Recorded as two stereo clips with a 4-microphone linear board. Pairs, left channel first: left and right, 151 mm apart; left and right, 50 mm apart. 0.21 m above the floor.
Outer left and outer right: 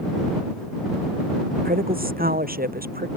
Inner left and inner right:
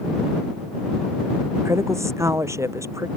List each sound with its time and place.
1.6 s a woman speaking: 75° right (ahead or behind); by 3.1 s 80° right